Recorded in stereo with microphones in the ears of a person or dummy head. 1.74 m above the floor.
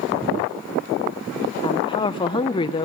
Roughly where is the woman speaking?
Left.